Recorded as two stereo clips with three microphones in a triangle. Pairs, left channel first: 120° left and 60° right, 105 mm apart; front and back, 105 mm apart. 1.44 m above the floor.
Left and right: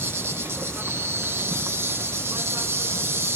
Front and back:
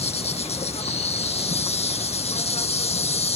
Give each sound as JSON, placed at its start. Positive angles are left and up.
{"t": 0.0, "sound": "an insect", "azimuth_deg": 5}